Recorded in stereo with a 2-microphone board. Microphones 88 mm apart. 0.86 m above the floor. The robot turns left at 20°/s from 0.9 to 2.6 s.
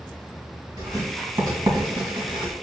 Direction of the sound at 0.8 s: 45° right (ahead or behind).